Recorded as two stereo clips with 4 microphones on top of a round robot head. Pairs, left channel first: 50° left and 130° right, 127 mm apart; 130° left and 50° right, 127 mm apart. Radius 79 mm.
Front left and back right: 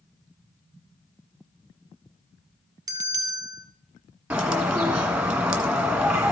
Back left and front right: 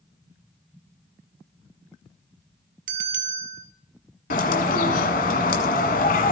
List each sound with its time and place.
2.9 s a bell: 65° right, 1.6 m
4.3 s a bird: 150° left, 1.6 m